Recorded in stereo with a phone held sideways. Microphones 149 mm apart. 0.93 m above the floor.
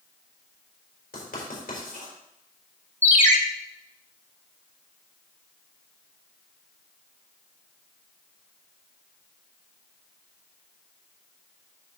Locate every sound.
1.1 s writing: 80° left, 4 m
3.0 s a ringtone: 50° right (ahead or behind), 1.1 m